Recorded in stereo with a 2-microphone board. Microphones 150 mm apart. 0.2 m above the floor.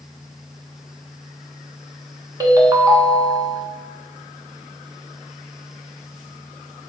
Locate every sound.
2.4 s a ringtone: 25° right (ahead or behind), 0.7 m